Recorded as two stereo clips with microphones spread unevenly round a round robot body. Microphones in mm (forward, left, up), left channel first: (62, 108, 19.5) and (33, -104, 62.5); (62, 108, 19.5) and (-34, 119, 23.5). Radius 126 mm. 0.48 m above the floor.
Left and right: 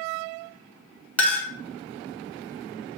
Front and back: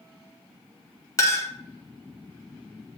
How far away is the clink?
About 0.8 m.